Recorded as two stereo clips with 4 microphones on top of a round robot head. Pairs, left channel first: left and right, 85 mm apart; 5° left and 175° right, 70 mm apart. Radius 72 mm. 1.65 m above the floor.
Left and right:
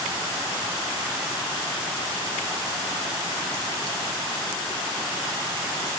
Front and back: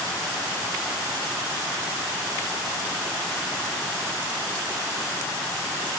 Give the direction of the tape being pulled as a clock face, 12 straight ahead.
No tape being pulled in this recording.